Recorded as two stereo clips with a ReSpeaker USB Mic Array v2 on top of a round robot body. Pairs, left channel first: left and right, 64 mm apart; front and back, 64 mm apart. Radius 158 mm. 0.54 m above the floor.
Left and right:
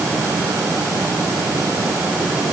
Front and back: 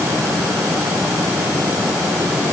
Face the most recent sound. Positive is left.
No sound to turn to.